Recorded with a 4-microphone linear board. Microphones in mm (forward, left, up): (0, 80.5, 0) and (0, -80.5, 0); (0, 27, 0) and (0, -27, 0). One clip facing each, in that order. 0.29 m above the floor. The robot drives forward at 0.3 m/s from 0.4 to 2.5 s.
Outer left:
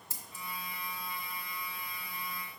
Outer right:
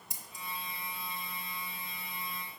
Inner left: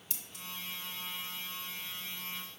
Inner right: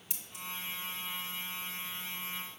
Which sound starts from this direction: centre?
Scissors, at 0.1 s.